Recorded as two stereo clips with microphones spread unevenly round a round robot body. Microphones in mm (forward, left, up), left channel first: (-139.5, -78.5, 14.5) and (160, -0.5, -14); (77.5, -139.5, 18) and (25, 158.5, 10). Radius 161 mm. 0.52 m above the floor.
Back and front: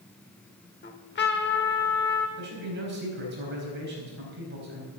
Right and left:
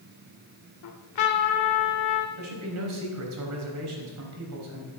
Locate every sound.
0.8 s a trumpet: 110° right, 1.3 m
2.4 s a man speaking: 70° left, 4 m